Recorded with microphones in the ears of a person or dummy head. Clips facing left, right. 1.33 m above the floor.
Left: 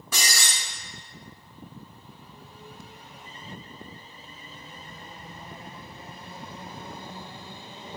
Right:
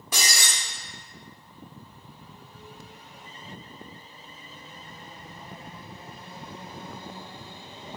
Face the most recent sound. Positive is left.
turn(degrees=-15)  # may be behind; listen again after turning